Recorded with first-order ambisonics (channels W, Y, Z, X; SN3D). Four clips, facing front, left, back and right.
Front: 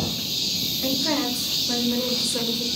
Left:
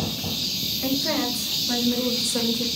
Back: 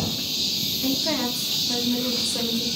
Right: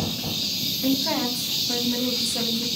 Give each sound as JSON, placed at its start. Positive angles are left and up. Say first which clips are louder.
{"t": 0.8, "sound": "a woman speaking", "louder": "right 1 dB, front 1 dB", "azimuth_deg": 45, "distance_m": 7.5}